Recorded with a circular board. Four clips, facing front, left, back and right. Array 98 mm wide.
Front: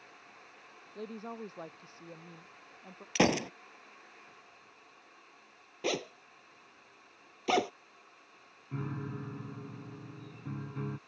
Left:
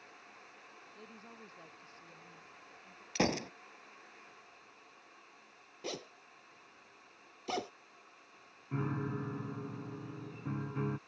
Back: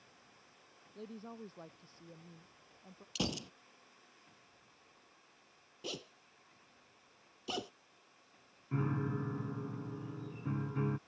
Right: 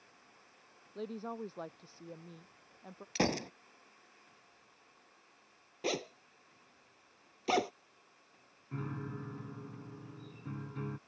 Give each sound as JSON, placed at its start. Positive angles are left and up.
{"t": 0.9, "sound": "a woman speaking", "azimuth_deg": -60}
{"t": 3.1, "sound": "a gunshot", "azimuth_deg": 0}
{"t": 5.8, "sound": "a zipper", "azimuth_deg": -30}
{"t": 8.7, "sound": "a piano", "azimuth_deg": 120}